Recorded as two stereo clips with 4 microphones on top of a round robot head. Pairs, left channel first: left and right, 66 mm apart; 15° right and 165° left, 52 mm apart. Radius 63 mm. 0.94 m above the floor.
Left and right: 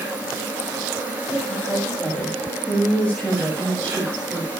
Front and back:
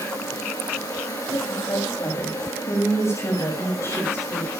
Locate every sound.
0.0 s an insect: 20° right, 5.5 m
1.5 s a woman speaking: 15° left, 6 m